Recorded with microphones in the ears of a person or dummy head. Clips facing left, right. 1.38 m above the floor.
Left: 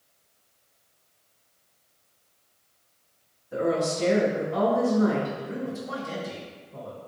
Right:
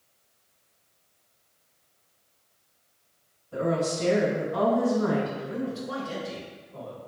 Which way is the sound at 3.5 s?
80° left.